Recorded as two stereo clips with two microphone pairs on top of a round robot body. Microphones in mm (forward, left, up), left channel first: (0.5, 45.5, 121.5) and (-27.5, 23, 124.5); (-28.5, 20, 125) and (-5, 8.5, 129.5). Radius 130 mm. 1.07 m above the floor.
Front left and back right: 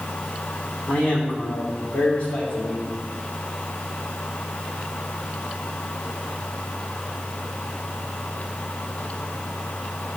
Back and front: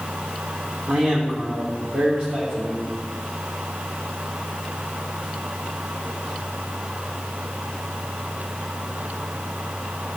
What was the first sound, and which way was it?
A man speaking, 5° right.